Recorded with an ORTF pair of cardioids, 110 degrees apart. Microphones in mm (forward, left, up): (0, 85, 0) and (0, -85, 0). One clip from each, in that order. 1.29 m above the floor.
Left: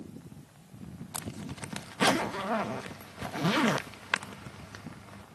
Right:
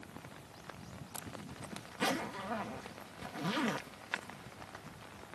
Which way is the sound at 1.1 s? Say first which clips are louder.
Left 7 dB; 50° left.